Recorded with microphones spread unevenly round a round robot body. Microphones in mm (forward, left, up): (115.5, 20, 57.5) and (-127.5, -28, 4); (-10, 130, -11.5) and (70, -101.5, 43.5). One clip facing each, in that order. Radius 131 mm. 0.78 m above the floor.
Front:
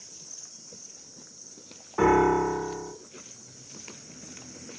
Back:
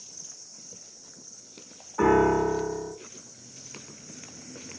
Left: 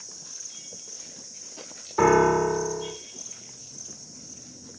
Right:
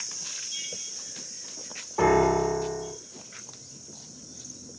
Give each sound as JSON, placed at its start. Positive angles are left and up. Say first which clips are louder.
{"t": 2.0, "sound": "a piano", "louder": "back 1 dB, left 2 dB", "azimuth_deg": 40, "distance_m": 1.5}